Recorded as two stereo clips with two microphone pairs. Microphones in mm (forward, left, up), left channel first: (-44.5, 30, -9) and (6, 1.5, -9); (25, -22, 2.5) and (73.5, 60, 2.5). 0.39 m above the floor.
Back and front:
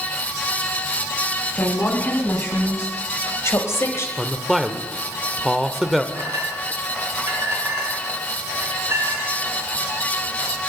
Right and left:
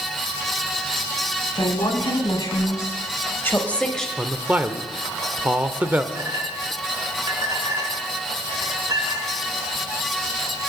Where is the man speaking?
60° left, 0.9 m.